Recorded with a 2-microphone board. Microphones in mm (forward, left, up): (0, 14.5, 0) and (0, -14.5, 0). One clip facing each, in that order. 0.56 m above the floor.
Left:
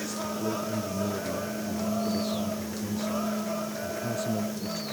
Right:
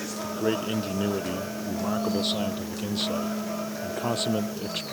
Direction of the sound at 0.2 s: 70° right (ahead or behind).